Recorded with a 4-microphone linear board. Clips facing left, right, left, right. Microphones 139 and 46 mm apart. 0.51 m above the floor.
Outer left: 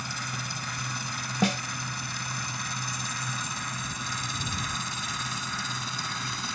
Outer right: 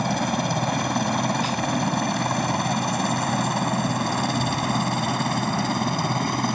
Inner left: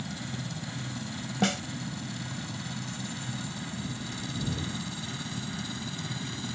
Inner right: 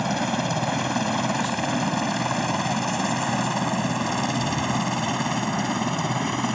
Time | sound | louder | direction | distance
0.0 | a helicopter | outer right 15 dB, inner right 14 dB | 70° right (ahead or behind) | ?
1.4 | a snare drum | outer right 1 dB, inner right 2 dB | 75° left (ahead or behind) | ?